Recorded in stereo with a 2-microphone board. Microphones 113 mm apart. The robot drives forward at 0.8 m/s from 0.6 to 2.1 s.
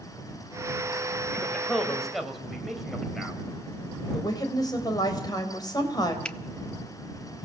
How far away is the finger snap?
About 0.7 m.